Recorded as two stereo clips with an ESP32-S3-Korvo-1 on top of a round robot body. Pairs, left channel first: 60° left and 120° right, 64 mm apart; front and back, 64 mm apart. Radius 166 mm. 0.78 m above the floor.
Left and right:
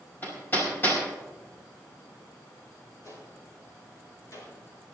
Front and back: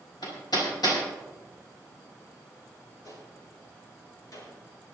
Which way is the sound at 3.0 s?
25° left.